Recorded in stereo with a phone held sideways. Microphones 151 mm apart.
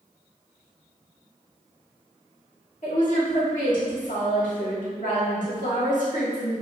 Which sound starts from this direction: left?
A woman speaking, at 2.8 s.